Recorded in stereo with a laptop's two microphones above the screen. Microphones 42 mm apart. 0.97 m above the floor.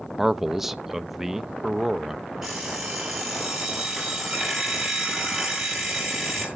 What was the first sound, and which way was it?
A man speaking, 10° right (ahead or behind).